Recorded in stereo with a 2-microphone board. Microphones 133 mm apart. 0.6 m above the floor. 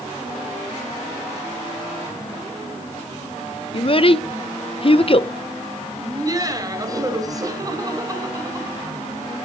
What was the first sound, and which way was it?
A child speaking, 45° left (ahead or behind).